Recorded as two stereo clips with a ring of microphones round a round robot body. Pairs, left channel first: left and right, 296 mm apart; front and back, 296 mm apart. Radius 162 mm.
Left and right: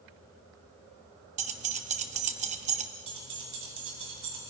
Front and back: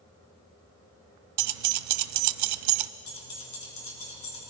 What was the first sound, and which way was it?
Keys jangling, 155° right.